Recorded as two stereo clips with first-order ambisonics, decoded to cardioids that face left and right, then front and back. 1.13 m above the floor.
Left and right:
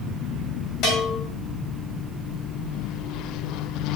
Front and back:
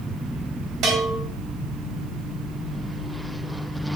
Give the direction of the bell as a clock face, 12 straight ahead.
7 o'clock.